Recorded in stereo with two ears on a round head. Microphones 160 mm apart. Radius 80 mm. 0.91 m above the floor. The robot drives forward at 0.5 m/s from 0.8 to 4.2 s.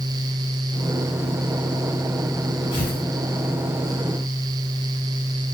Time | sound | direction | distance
2.7 | tearing paper | 30° left (ahead or behind) | 5 m